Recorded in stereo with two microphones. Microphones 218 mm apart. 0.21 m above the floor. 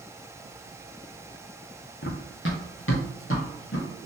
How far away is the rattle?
I don't hear a rattle.